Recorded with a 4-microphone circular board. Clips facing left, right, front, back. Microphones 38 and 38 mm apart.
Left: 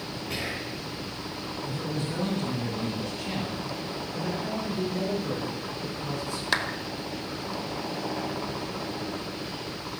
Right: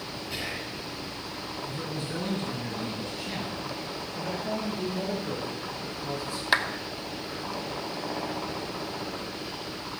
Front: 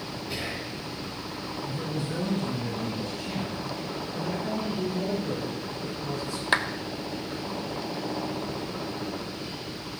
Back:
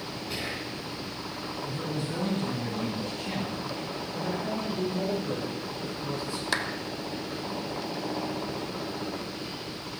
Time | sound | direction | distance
0.3 | whispering | 100° left | 3 m
1.7 | a man speaking | 135° left | 2.5 m
4.1 | a man speaking | 120° left | 6.5 m
6.5 | a clap | 20° right | 0.9 m